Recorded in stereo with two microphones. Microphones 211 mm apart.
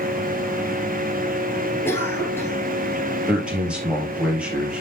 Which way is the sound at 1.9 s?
10° left (ahead or behind).